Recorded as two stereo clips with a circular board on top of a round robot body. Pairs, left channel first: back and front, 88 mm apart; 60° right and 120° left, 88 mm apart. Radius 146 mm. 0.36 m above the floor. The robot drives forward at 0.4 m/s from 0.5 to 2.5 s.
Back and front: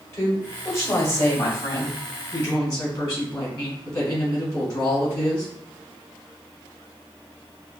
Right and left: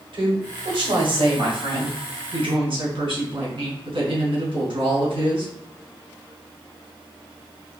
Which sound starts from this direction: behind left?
A woman speaking, at 0.1 s.